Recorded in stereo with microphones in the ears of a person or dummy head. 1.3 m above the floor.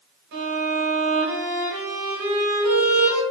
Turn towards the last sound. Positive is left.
turn(degrees=-65)  # may be behind; listen again after turning